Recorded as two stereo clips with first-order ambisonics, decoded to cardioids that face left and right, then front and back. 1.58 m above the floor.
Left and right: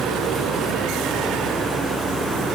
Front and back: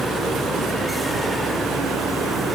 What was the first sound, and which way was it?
Only background noise.